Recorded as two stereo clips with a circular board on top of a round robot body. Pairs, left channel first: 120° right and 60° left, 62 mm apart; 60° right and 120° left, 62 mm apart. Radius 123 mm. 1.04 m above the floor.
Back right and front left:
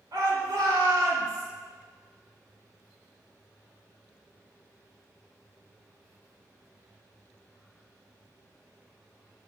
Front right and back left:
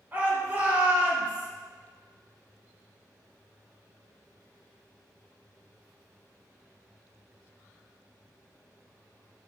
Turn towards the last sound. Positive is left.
turn(degrees=60)